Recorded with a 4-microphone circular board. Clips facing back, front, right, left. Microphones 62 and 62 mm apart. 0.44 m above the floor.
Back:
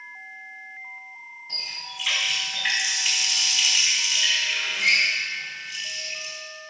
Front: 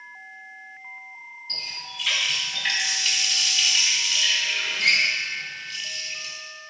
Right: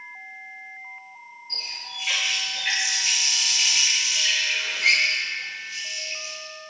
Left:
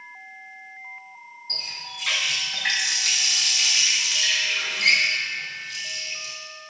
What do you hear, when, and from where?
1.5 s a running tap: 105° left, 2 m